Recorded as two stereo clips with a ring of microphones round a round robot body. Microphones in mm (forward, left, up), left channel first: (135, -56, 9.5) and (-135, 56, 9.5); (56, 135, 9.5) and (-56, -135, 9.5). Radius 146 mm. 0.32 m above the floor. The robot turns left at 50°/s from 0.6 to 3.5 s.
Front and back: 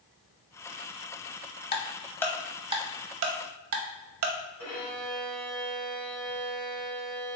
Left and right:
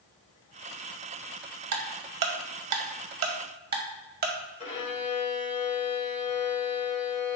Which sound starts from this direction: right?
Ticking, at 1.7 s.